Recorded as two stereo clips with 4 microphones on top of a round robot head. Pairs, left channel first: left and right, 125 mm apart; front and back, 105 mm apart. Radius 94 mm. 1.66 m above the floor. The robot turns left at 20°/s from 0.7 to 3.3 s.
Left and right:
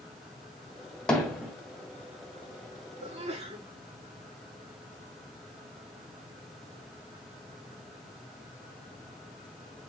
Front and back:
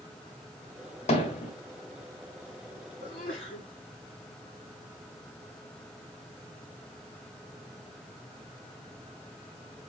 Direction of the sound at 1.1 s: 5° left.